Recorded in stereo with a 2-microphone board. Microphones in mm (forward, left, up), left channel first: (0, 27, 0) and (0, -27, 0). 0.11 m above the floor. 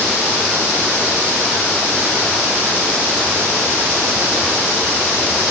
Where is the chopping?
No chopping in this recording.